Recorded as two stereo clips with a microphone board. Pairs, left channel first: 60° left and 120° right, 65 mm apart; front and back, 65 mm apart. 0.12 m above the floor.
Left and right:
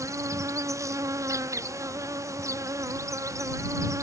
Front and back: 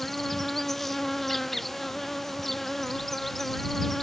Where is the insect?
85° right.